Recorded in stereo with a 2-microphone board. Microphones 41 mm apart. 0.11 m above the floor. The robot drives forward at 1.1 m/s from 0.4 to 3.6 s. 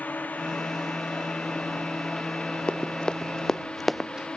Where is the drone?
40° left (ahead or behind); by 4.4 s 20° left (ahead or behind).